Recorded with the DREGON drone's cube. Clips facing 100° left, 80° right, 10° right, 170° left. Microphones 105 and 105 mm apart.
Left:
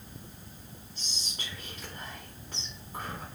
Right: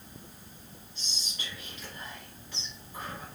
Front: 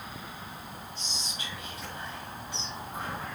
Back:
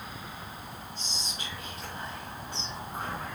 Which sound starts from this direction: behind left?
Whispering, at 0.9 s.